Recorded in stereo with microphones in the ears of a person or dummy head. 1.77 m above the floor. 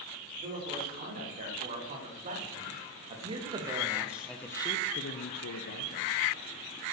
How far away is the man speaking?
About 6.5 m.